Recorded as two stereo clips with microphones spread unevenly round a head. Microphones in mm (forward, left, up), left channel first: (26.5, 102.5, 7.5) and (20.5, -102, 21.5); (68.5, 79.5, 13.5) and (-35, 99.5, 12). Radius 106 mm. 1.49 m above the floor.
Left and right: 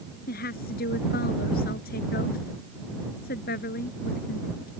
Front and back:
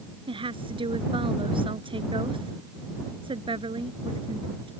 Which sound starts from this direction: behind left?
A woman speaking, at 0.3 s.